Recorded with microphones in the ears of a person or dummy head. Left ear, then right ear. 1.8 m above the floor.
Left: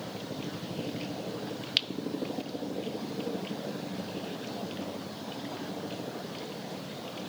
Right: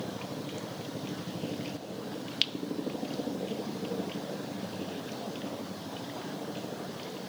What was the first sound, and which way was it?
Only background noise.